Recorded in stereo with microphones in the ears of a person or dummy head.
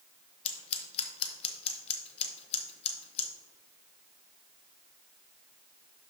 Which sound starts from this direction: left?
Scissors, at 0.5 s.